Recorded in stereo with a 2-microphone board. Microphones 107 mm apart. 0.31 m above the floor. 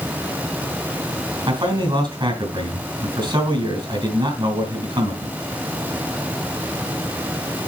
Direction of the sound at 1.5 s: 50° right (ahead or behind).